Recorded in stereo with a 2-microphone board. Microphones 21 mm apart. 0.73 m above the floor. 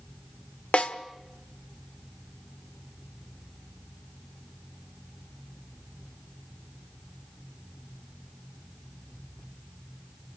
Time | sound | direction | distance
0.7 | a snare drum | 80° left | 1.3 m